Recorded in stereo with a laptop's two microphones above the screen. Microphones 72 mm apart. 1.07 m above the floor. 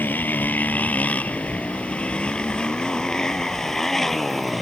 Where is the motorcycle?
25° left (ahead or behind); by 4.6 s centre (ahead or behind).